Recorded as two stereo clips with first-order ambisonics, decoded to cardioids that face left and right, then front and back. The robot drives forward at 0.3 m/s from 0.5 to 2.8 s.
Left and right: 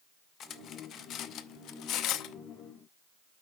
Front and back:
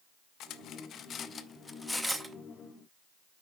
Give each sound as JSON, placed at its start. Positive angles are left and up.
{"t": 0.4, "sound": "cutlery clinking", "azimuth_deg": 40, "distance_m": 0.7}